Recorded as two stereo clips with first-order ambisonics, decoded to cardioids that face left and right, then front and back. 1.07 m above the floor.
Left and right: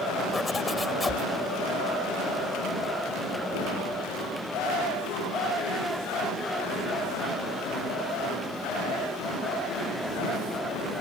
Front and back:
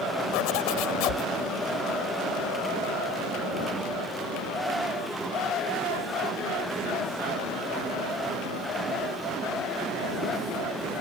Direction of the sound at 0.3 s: 10° left.